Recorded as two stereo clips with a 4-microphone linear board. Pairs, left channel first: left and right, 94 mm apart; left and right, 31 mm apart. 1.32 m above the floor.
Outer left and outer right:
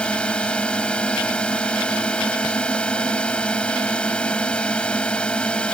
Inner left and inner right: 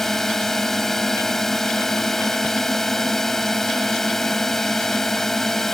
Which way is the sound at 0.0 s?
10° left (ahead or behind).